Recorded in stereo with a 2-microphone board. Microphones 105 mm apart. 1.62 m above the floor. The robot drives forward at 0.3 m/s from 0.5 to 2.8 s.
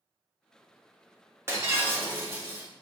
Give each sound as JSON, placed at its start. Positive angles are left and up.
{"t": 1.5, "sound": "breaking glass", "side_deg": -25, "distance_m": 0.8}